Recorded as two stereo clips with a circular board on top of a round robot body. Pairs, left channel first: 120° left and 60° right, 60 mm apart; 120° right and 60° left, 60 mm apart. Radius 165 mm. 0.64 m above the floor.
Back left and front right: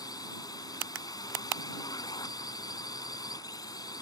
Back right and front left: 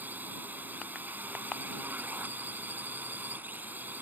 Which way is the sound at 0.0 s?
120° left.